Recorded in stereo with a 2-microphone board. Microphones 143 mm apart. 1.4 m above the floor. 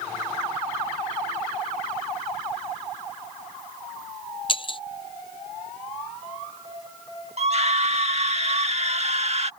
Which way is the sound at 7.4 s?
50° right (ahead or behind).